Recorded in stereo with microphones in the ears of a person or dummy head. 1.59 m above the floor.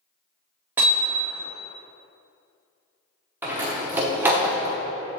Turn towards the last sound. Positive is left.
turn(degrees=-15)  # may be behind; listen again after turning